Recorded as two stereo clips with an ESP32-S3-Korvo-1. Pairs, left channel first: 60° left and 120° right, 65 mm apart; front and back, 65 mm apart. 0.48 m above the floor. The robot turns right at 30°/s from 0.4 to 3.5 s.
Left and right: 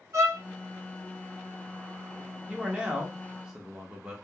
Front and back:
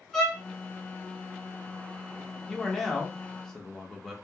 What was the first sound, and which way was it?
A violin, 80° right.